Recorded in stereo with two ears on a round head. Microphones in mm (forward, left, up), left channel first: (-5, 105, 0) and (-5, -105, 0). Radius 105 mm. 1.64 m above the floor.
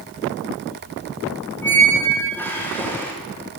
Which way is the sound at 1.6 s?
10° left (ahead or behind).